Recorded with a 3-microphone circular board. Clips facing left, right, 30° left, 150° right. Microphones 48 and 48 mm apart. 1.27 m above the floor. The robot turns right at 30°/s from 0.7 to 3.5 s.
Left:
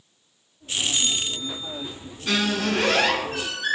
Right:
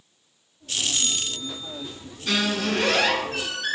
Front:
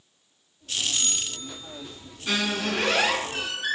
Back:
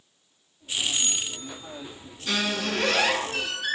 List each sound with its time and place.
0.9 s a bell: 145° right, 0.6 m; by 2.0 s 115° right, 0.6 m
2.3 s a squeak: 35° left, 1.2 m; by 3.8 s 70° left, 1.2 m